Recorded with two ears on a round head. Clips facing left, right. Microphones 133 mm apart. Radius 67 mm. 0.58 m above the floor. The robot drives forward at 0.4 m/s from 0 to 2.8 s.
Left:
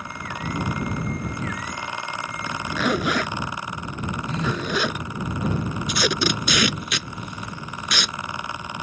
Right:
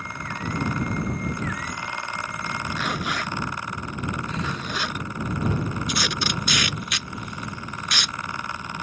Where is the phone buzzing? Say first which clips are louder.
Left 4 dB; 35° left (ahead or behind).